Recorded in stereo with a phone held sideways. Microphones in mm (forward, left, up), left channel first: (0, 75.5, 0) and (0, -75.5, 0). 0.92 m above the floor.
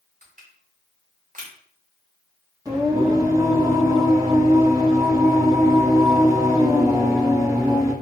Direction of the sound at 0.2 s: 55° right (ahead or behind).